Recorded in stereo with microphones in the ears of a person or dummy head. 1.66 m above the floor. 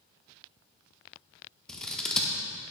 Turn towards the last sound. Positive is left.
turn(degrees=5)  # may be behind; listen again after turning